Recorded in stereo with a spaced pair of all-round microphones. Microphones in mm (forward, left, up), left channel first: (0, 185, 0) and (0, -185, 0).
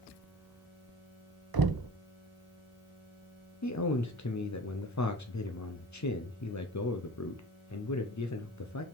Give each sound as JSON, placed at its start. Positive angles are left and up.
{"t": 1.5, "sound": "knocking", "side_deg": -70, "distance_m": 0.6}
{"t": 3.6, "sound": "a man speaking", "side_deg": 50, "distance_m": 0.8}